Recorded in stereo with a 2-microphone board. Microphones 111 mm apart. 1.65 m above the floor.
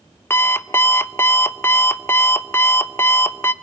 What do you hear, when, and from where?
0.3 s an alarm clock: 20° left (ahead or behind), 0.8 m